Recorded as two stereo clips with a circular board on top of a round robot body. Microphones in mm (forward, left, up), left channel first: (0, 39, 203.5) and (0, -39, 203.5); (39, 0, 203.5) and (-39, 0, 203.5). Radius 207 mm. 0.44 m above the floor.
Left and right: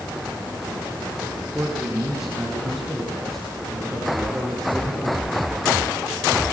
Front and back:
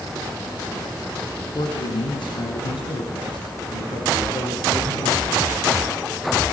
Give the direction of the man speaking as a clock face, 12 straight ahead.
12 o'clock.